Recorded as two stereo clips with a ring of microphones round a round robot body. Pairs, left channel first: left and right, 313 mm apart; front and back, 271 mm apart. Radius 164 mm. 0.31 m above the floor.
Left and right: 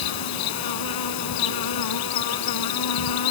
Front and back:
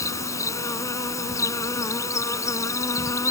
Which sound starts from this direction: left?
An insect, at 0.0 s.